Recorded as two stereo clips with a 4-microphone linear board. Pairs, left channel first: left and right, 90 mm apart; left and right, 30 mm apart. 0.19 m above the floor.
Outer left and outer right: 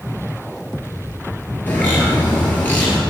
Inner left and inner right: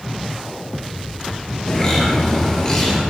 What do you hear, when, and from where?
1.7 s a bird: 20° left (ahead or behind), 2 m